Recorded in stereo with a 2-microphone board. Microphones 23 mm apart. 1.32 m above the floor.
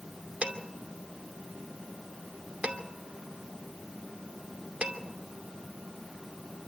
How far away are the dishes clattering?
About 2.5 m.